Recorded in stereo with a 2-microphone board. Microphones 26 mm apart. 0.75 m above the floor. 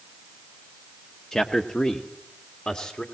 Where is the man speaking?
35° left (ahead or behind), 1.0 m; by 3.0 s 50° left (ahead or behind), 2 m.